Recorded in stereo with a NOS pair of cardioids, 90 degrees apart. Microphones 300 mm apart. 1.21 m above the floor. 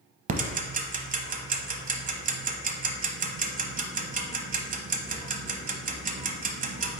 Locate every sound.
0.3 s ticking: 30° right, 0.6 m